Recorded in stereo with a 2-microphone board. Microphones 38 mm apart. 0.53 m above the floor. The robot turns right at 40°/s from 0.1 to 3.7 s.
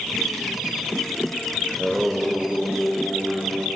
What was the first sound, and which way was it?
Singing, 175° left.